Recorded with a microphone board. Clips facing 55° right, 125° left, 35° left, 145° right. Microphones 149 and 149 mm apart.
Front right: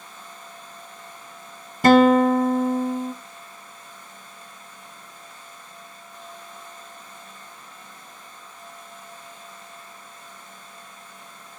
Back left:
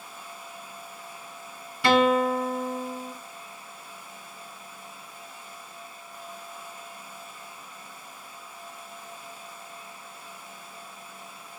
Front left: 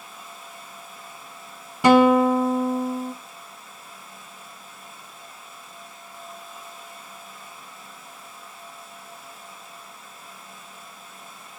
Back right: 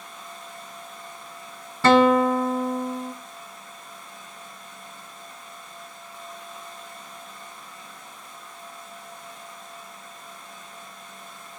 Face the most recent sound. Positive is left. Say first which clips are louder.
# front right 7 dB, front left 2 dB
turn(degrees=-35)